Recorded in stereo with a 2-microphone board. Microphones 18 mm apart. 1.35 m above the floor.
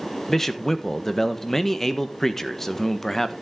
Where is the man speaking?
25° left (ahead or behind), 1.2 m.